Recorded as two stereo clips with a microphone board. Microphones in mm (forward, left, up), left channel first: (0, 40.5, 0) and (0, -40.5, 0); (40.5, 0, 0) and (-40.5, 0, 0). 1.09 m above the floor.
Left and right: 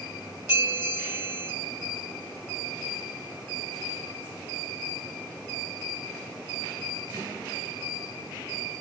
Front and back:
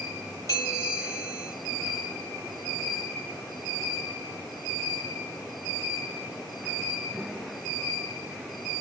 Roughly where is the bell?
Ahead right.